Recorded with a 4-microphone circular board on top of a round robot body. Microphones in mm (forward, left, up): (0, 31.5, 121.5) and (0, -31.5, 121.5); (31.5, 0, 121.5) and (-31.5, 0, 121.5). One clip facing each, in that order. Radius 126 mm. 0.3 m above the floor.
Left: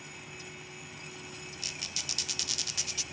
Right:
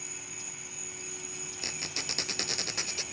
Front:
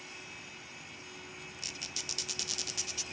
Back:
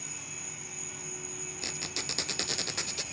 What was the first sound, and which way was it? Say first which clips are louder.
An insect: left 1 dB, back 2 dB; 100° right.